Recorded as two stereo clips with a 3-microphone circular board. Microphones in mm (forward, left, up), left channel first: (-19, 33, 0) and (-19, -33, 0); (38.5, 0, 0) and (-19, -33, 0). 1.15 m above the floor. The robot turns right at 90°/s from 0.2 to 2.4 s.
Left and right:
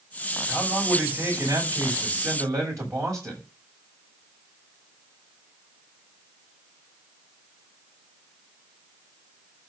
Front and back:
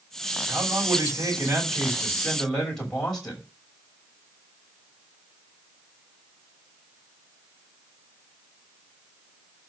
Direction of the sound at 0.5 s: 135° left.